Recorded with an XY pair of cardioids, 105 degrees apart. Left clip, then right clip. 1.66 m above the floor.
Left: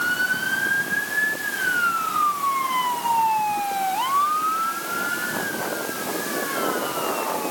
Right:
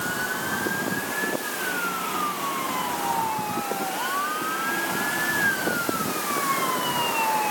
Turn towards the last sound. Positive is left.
No sound to turn to.